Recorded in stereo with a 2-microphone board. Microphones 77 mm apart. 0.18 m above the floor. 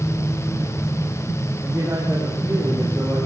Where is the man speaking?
30° right (ahead or behind), 9 m.